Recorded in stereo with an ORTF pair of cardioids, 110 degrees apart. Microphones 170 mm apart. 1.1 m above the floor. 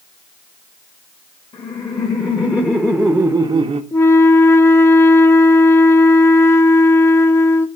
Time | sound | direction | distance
1.5 | laughter | 30° left | 1.5 m
3.9 | a flute | 15° left | 0.6 m